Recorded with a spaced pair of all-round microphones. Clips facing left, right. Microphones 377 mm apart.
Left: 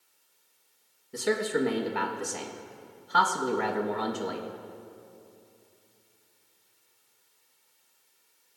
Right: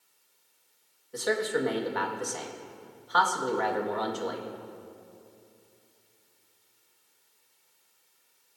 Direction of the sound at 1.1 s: 40° left (ahead or behind).